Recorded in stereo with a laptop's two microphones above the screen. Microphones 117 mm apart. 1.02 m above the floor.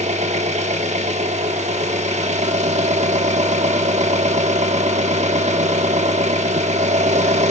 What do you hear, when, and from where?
0.0 s an engine running: 75° right (ahead or behind), 1.2 m